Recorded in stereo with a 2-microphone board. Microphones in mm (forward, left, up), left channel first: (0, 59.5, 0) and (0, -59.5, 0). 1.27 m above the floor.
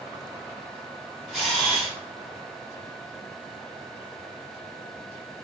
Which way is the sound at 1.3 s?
Centre (ahead or behind).